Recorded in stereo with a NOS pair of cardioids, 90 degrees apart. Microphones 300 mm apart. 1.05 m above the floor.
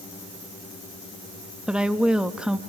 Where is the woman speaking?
5° right, 1.2 m.